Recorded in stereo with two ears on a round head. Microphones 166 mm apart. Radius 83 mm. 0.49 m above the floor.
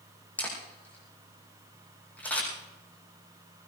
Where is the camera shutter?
10° left (ahead or behind), 5.5 m.